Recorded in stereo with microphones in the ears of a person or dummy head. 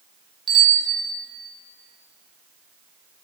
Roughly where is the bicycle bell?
Centre.